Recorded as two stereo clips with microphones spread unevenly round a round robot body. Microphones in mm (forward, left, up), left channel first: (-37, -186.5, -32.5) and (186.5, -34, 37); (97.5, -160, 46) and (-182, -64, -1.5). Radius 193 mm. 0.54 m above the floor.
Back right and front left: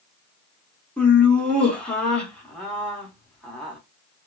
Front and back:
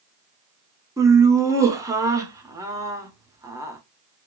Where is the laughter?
175° right, 0.6 m.